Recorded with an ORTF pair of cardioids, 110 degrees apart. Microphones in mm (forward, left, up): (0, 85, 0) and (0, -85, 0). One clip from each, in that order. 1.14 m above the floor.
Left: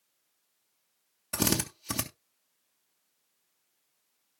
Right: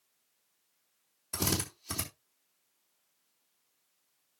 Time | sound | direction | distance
1.3 | a drill | 50° left | 3 m